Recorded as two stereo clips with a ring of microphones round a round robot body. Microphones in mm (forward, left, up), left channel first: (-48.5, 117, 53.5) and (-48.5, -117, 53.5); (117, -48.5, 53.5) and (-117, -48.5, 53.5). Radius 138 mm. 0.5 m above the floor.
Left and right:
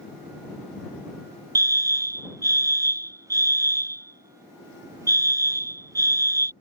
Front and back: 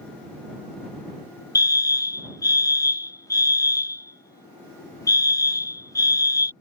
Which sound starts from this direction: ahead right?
A fire alarm, at 1.6 s.